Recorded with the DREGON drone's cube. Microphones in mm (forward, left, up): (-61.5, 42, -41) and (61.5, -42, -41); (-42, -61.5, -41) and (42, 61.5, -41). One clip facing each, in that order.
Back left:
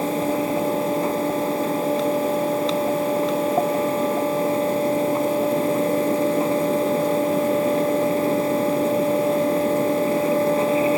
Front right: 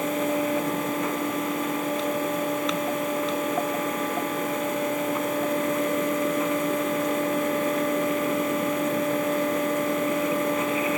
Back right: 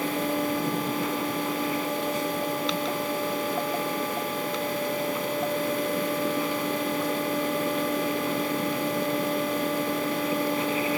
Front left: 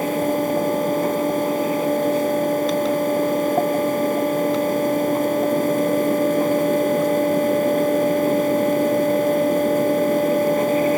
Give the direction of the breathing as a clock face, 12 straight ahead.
I don't hear breathing.